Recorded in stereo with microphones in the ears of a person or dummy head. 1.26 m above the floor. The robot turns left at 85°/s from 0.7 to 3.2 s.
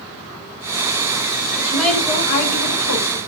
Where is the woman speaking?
160° right, 1.2 m; by 3.2 s 60° left, 1.2 m.